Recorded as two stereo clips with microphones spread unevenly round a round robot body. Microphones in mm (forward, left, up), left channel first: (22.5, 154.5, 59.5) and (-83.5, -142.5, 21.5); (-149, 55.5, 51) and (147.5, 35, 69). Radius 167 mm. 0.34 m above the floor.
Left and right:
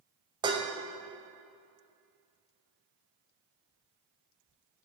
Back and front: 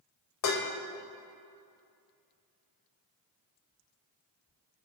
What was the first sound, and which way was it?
Dishes clattering, straight behind.